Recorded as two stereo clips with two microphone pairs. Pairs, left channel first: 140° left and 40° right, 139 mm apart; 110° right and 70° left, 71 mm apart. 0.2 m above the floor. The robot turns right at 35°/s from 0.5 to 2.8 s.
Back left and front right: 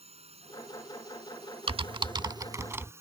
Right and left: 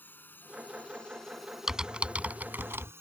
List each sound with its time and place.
0.0 s a drone: 55° right; by 3.0 s 25° left
1.7 s typing on a keyboard: 10° right; by 2.9 s 30° left